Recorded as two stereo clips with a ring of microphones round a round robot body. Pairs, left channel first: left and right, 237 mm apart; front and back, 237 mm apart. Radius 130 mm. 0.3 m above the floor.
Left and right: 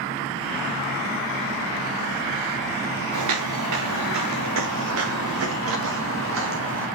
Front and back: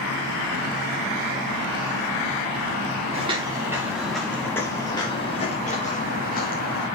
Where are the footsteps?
110° right, 1.8 m; by 6.9 s 55° right, 3.5 m.